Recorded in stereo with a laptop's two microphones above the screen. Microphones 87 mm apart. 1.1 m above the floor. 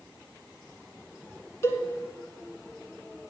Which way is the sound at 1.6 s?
35° left (ahead or behind).